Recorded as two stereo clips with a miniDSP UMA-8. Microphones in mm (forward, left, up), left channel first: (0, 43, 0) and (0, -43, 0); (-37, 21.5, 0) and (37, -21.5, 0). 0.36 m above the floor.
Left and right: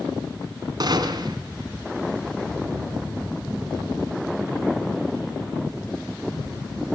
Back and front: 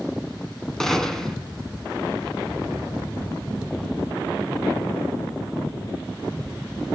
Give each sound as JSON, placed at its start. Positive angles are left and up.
{"t": 0.8, "sound": "a gunshot", "azimuth_deg": -125, "distance_m": 2.5}